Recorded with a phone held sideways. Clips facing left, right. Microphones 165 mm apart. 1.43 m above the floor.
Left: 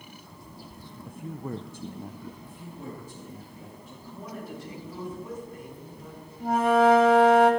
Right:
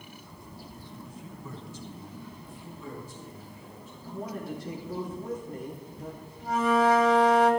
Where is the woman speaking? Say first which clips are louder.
Right 4 dB; 65° right (ahead or behind), 4.5 m.